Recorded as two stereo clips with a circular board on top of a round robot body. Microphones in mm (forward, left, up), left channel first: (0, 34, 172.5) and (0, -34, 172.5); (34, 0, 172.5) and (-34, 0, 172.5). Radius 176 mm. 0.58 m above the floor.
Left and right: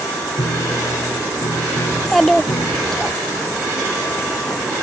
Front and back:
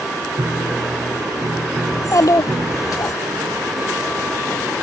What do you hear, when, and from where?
0.4 s a piano: 120° left
1.9 s a child speaking: 5° left